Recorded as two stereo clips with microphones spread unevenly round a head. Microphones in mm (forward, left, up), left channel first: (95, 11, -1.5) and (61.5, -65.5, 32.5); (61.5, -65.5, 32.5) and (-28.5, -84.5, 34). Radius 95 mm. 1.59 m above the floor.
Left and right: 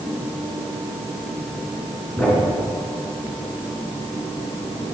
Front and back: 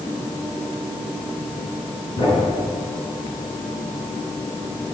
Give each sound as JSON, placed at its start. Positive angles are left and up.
{"t": 2.2, "sound": "a thud", "azimuth_deg": -15, "distance_m": 7.5}